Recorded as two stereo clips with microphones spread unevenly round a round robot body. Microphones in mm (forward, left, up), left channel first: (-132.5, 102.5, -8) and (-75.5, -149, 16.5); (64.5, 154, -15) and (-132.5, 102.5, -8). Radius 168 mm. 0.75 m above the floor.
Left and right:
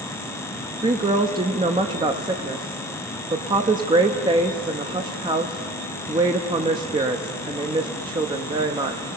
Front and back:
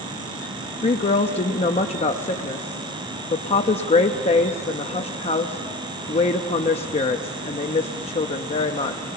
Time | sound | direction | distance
0.8 | a woman speaking | 10° right | 0.6 m